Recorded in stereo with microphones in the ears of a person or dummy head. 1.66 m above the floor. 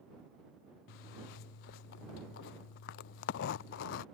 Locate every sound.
0.9 s a zipper: 60° left (ahead or behind)